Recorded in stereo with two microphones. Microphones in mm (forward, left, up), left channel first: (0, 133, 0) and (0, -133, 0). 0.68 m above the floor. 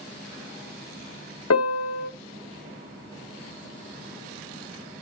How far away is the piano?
About 0.5 m.